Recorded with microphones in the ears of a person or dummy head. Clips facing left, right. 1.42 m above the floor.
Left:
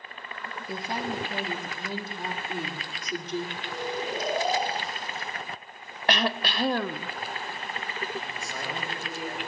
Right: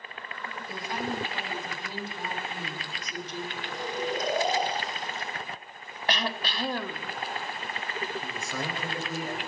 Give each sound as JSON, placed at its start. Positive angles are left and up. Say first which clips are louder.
{"t": 0.7, "sound": "a woman speaking", "louder": "left 1 dB", "side_deg": 25, "distance_m": 2.5}
{"t": 3.6, "sound": "snoring", "louder": "even", "side_deg": 5, "distance_m": 3.5}
{"t": 6.1, "sound": "throat clearing", "louder": "left 4 dB", "side_deg": 50, "distance_m": 0.6}
{"t": 8.2, "sound": "a man speaking", "louder": "right 2 dB", "side_deg": -70, "distance_m": 5.0}